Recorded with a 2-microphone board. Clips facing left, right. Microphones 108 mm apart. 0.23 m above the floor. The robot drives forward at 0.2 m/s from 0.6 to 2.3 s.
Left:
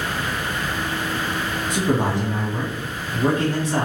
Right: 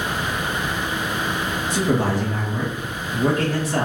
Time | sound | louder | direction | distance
1.7 | a man speaking | even | 25° left (ahead or behind) | 1.2 m